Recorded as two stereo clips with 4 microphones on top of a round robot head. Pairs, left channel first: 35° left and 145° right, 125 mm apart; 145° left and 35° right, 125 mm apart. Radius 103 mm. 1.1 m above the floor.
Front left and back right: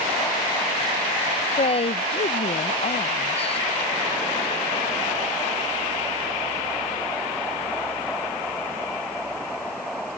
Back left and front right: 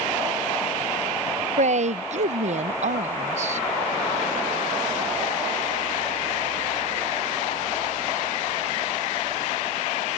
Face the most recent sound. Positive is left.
turn(degrees=-5)